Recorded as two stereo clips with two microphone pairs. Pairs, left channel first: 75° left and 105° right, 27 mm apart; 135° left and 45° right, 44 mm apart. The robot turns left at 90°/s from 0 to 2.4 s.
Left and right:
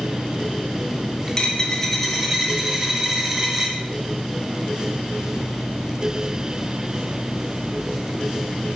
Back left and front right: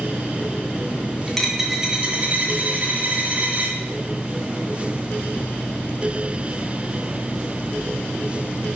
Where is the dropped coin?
70° left, 1.7 m; by 3.8 s 30° right, 1.7 m.